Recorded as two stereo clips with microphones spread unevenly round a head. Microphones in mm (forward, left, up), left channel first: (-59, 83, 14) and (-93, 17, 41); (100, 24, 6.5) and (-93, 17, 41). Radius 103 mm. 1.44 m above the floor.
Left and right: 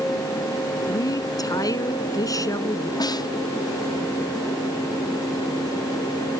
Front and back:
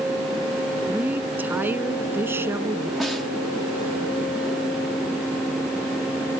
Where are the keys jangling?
No keys jangling in this recording.